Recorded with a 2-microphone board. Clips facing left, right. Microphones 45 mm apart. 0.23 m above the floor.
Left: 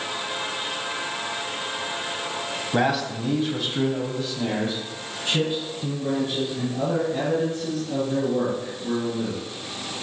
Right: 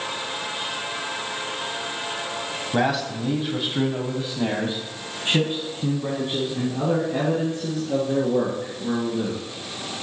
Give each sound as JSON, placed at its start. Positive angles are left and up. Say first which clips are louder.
{"t": 2.7, "sound": "a man speaking", "louder": "even", "side_deg": 5, "distance_m": 1.2}